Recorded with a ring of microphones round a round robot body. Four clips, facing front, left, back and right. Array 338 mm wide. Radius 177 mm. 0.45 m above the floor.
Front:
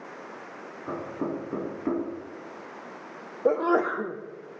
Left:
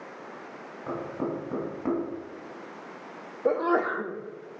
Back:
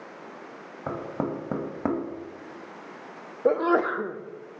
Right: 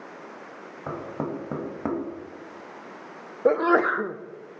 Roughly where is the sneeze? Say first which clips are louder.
Right 4 dB, back 1 dB; right.